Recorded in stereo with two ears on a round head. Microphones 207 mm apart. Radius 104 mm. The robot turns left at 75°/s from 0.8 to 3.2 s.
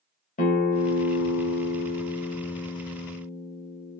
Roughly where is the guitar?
Behind left.